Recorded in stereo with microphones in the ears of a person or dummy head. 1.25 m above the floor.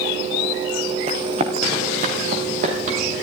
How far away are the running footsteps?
About 3 m.